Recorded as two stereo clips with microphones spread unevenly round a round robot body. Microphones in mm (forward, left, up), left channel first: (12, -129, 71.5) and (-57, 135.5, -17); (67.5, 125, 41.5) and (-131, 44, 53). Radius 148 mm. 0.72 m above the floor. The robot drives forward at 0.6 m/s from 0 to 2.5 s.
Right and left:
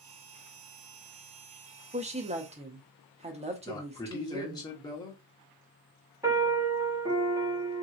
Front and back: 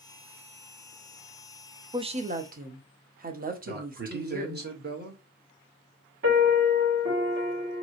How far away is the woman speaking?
About 0.6 m.